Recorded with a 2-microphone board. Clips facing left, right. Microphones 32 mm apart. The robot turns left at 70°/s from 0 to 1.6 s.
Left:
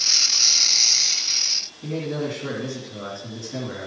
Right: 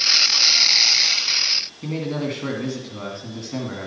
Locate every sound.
1.8 s a man speaking: 45° right (ahead or behind), 2 m